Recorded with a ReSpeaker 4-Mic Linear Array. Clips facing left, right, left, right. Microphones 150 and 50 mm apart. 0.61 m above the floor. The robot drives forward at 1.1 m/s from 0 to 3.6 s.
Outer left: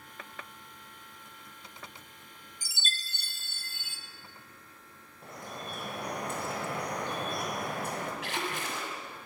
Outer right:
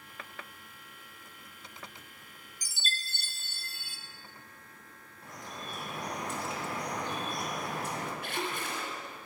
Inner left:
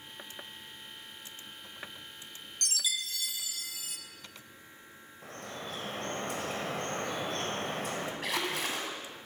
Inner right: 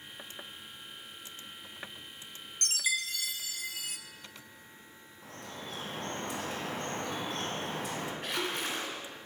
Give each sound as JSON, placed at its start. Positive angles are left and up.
{"t": 2.6, "sound": "a chime", "side_deg": -35, "distance_m": 1.0}
{"t": 5.2, "sound": "dripping", "side_deg": 55, "distance_m": 2.0}
{"t": 8.2, "sound": "a splash", "side_deg": 80, "distance_m": 2.0}